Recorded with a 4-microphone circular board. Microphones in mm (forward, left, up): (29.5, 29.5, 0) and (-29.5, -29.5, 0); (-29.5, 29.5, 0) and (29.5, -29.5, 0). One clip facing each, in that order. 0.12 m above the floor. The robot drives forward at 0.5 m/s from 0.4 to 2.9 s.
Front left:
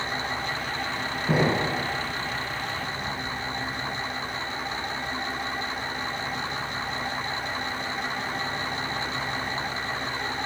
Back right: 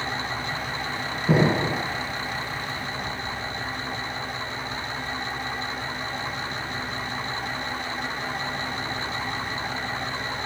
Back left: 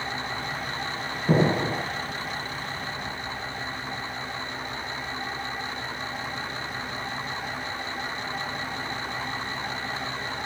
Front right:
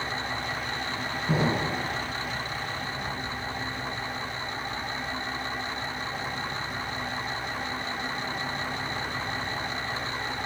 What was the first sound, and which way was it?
An explosion, 160° left.